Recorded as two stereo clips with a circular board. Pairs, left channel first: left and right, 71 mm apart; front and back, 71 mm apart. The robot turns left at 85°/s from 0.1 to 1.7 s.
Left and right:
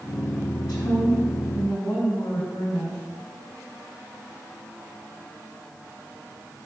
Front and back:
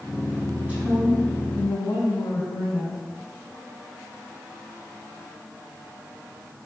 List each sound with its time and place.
0.6 s a woman speaking: 120° left, 4 m; by 3.0 s 25° left, 4 m